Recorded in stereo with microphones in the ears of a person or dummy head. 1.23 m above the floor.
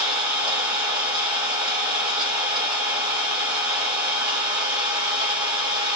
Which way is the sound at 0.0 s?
30° right (ahead or behind).